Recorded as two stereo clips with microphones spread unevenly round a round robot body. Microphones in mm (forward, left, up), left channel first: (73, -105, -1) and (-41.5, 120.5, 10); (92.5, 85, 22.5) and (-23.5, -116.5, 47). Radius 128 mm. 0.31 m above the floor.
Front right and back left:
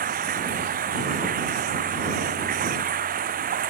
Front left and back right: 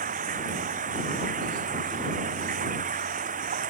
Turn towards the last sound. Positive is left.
turn(degrees=180)